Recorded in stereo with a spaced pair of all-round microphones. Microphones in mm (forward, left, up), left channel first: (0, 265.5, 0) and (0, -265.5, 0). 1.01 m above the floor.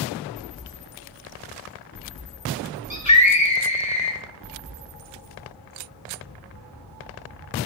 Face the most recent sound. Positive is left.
turn(degrees=35)  # may be behind; listen again after turning